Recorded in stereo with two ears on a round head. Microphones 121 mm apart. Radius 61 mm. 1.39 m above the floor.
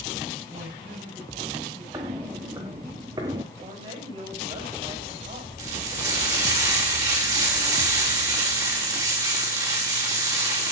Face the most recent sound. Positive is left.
turn(degrees=-30)  # may be behind; listen again after turning